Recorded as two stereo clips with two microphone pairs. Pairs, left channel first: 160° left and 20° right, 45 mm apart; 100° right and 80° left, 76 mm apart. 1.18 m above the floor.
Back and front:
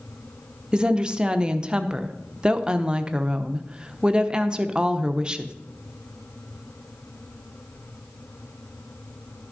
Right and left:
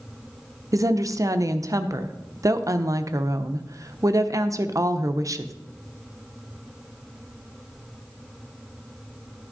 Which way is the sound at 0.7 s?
45° left.